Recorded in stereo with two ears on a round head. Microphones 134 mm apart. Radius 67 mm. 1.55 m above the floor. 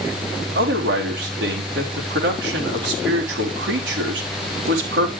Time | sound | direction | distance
0.6 | a man speaking | 85° right | 4 m